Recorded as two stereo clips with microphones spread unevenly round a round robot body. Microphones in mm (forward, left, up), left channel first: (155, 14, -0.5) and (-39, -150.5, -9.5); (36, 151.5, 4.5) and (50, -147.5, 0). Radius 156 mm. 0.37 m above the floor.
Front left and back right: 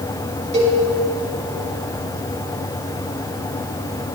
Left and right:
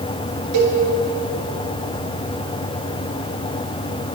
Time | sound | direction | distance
0.5 | a cowbell | 75° right | 4.5 m